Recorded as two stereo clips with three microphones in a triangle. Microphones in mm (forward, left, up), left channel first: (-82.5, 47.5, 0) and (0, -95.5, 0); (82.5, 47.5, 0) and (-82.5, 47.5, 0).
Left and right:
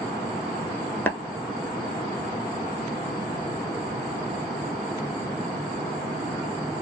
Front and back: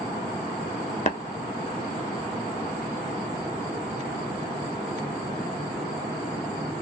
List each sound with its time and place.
1.1 s tapping: 45° left, 0.8 m